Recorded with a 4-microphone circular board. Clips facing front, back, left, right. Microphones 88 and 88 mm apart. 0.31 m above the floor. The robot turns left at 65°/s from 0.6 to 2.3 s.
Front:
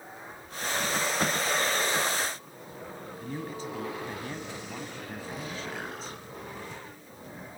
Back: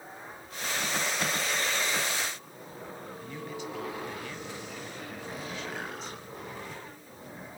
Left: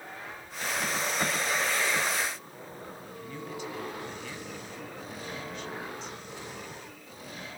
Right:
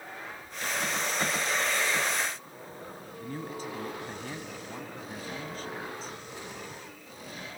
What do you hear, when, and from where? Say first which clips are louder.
3.2 s a man speaking: front 3 dB, right 2 dB; 45° right, 2.5 m